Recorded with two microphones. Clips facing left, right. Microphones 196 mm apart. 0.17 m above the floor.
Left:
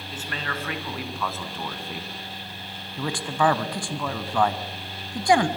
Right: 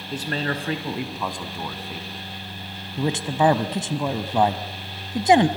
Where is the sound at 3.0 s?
20° right (ahead or behind), 1.1 m.